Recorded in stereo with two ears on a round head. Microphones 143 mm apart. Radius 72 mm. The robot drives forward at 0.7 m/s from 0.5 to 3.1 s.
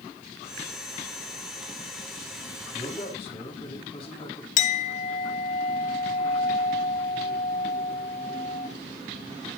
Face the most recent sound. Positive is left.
turn(degrees=45)  # may be behind; listen again after turning